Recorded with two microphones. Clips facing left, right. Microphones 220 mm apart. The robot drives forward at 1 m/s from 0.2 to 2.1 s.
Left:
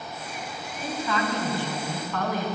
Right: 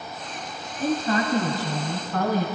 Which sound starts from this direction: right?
A woman speaking, at 0.8 s.